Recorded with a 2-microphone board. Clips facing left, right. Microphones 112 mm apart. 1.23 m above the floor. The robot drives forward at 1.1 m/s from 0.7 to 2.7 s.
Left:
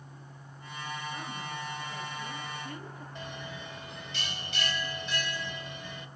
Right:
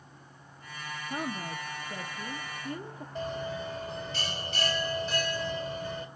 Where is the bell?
40° right (ahead or behind), 1.7 m.